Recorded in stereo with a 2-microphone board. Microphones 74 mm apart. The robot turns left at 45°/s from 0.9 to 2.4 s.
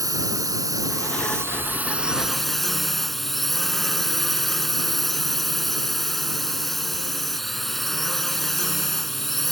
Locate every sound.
0.0 s a drone: 115° right; by 9.5 s 175° left